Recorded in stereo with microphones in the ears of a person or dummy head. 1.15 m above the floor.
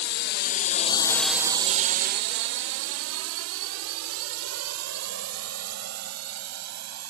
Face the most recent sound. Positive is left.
turn(degrees=-85)